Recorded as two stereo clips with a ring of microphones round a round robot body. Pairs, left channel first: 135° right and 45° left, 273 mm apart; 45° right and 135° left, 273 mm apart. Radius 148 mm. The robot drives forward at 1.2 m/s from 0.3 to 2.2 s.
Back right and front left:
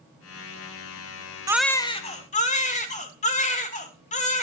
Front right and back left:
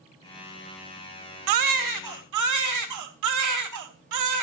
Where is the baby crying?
120° left, 0.5 m; by 4.4 s 160° left, 1.2 m.